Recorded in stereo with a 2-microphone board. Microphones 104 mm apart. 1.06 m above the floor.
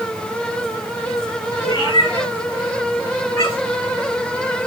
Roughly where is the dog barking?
I don't hear a dog barking.